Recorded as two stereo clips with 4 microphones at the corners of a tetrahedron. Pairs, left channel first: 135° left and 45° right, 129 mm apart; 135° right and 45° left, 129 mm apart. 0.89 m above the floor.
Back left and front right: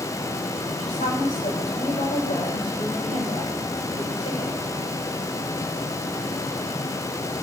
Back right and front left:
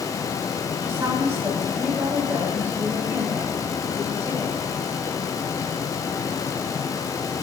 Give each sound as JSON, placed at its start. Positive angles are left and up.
{"t": 0.8, "sound": "a woman speaking", "azimuth_deg": 120, "distance_m": 9.0}